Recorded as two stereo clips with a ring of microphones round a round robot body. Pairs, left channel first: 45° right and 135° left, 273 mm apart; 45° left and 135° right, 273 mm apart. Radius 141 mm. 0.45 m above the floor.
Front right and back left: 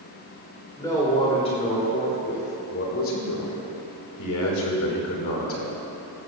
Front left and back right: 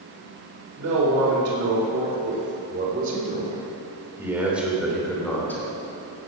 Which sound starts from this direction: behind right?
A man speaking, at 0.8 s.